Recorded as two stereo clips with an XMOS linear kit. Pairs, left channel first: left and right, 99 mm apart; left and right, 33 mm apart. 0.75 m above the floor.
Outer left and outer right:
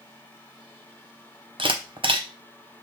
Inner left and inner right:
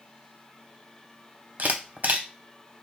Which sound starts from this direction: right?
A camera shutter, at 1.6 s.